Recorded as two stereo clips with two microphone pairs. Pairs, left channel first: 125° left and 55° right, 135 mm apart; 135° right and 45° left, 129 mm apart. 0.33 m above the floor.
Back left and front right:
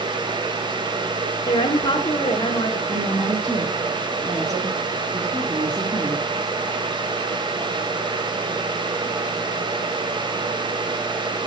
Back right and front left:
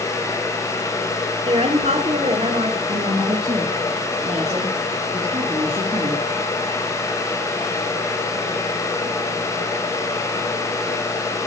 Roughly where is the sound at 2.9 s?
Ahead.